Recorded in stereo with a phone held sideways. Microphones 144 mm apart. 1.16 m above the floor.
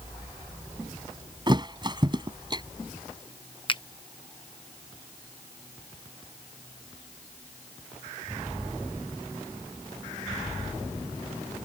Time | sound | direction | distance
1.5 | a thud | 30° right (ahead or behind) | ?
3.7 | a finger snap | 35° left (ahead or behind) | ?